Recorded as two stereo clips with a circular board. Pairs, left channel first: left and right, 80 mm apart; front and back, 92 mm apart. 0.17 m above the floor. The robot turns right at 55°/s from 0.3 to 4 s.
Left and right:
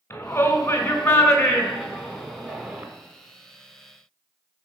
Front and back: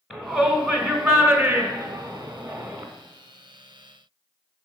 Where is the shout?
100° left, 1.9 m; by 2.9 s 120° right, 1.9 m.